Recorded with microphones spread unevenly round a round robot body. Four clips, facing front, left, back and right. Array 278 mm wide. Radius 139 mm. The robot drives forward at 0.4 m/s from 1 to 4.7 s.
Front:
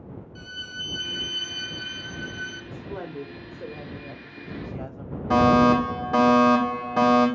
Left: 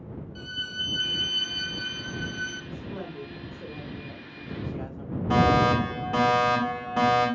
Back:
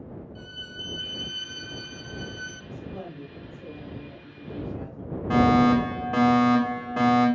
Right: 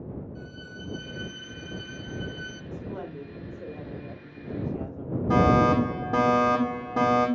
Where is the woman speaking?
20° right, 1.8 m; by 5.2 s 45° right, 1.3 m.